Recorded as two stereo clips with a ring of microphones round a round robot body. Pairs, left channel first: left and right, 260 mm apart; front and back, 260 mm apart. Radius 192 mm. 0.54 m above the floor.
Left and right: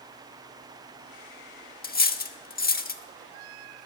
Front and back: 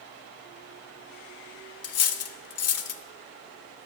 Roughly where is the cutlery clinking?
Ahead left.